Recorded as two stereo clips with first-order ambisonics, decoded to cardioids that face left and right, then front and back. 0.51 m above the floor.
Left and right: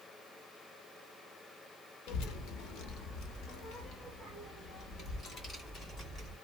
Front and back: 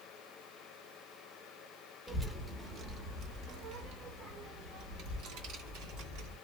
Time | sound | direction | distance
2.1 | a child speaking | 95° left | 0.7 m